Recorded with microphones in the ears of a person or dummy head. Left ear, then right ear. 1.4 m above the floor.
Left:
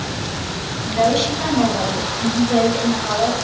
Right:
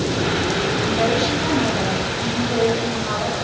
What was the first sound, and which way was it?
A woman speaking, 90° left.